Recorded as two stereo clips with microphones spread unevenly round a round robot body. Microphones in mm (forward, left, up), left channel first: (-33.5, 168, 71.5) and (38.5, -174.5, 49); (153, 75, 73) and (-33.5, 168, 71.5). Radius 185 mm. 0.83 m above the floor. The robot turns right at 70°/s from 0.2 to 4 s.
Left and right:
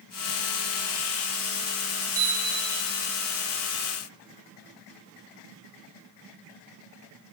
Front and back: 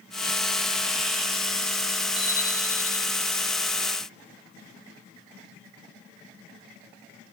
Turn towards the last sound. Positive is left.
turn(degrees=-30)